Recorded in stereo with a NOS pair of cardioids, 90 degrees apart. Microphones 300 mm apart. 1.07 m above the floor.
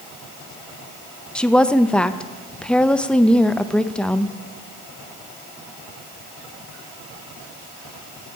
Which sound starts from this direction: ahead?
A woman speaking, at 1.4 s.